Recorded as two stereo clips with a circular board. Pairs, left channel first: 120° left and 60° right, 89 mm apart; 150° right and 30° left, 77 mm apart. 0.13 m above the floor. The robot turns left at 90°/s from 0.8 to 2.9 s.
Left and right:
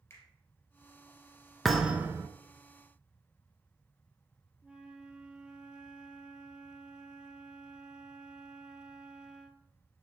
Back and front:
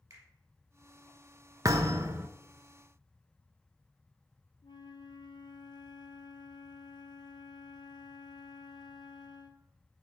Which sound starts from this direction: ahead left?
A thud, at 1.6 s.